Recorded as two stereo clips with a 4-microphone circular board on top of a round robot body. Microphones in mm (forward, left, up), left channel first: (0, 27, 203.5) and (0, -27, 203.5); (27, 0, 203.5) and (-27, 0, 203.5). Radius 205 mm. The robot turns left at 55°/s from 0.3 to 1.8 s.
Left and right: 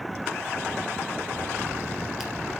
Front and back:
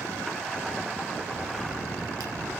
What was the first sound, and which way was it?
A crack, 150° right.